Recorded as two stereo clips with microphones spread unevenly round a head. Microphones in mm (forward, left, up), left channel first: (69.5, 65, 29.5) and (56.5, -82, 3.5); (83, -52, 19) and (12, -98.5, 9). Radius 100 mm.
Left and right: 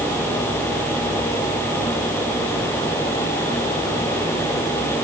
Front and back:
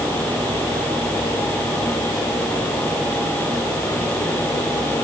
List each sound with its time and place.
Only background noise.